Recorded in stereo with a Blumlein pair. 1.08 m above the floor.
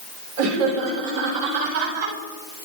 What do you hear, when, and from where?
0.4 s laughter: 50° right, 4 m; by 2.1 s 55° right, 5 m